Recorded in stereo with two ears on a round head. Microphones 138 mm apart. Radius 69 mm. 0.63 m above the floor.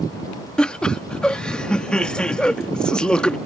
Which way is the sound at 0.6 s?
5° left (ahead or behind).